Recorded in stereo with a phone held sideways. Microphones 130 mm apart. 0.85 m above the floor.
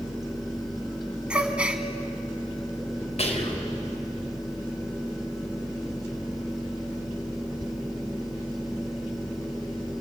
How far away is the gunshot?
No gunshot in this recording.